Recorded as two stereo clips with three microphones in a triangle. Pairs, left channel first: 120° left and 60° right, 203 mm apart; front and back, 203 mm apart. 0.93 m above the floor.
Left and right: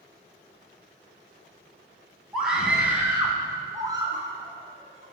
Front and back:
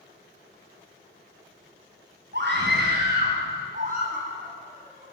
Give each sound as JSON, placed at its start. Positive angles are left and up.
{"t": 2.3, "sound": "a scream", "azimuth_deg": -150, "distance_m": 9.5}